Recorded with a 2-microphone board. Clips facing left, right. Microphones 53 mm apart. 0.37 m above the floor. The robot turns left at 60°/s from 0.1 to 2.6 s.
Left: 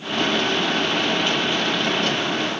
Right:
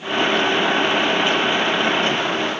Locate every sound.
Only background noise.